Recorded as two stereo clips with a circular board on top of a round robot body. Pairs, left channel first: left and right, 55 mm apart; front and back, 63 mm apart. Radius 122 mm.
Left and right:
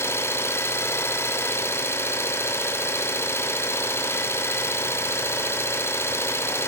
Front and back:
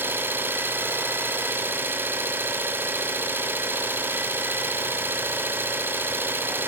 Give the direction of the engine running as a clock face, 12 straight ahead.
8 o'clock.